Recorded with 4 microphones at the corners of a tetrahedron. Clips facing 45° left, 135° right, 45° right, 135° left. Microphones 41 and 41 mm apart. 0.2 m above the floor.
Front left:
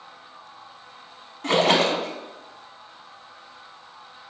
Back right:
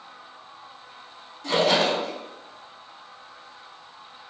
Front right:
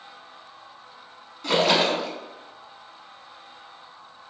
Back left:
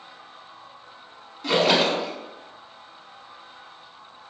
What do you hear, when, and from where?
1.4 s a splash: 50° left, 0.7 m